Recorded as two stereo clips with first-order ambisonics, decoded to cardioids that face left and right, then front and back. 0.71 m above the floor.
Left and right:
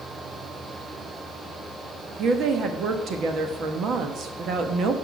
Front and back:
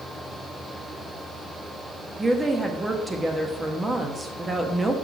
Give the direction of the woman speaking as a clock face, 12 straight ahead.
4 o'clock.